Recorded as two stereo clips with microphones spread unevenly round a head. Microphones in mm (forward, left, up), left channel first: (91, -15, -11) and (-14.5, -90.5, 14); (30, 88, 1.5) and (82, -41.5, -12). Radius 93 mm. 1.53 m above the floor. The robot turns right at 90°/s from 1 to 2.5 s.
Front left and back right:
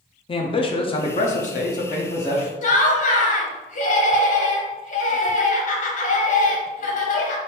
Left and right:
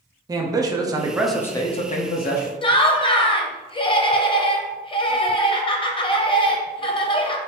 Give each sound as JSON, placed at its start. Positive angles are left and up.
{"t": 0.3, "sound": "a man speaking", "azimuth_deg": -5, "distance_m": 0.7}
{"t": 2.6, "sound": "laughter", "azimuth_deg": 55, "distance_m": 0.7}